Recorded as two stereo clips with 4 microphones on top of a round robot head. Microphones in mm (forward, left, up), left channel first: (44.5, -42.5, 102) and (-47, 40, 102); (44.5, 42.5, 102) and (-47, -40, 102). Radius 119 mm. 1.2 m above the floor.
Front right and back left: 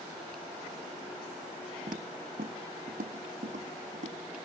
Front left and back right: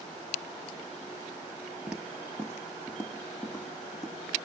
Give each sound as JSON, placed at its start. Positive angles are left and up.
{"t": 1.9, "sound": "footsteps", "azimuth_deg": 145, "distance_m": 1.3}